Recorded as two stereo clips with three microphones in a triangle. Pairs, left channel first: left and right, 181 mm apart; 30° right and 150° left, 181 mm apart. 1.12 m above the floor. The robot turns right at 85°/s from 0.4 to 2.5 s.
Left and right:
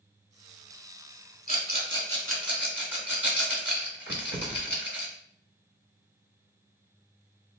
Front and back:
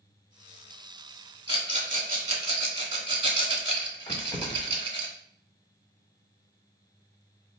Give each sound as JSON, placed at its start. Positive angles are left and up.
{"t": 1.5, "sound": "a rattle", "azimuth_deg": 105, "distance_m": 1.1}
{"t": 4.1, "sound": "keys jangling", "azimuth_deg": -95, "distance_m": 1.2}